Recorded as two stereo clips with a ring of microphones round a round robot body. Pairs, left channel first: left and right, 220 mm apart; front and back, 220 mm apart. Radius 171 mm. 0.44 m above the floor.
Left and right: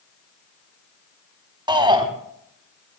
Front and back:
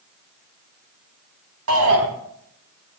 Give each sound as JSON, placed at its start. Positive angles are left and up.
{"t": 1.7, "sound": "a shout", "azimuth_deg": -160, "distance_m": 5.0}